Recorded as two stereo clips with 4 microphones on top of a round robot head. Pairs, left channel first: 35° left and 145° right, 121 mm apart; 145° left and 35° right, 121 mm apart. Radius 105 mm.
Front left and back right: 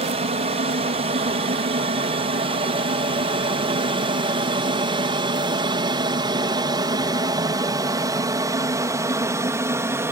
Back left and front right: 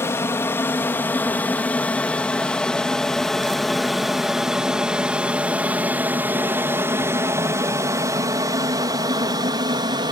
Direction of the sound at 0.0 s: 150° right.